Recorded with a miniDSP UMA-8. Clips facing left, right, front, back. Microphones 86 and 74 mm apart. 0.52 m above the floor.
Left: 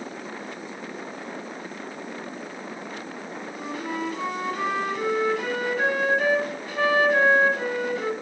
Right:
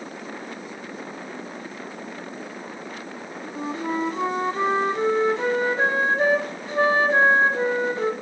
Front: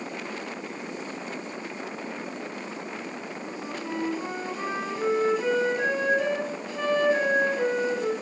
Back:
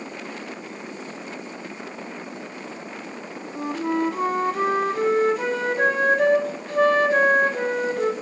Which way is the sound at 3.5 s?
145° right.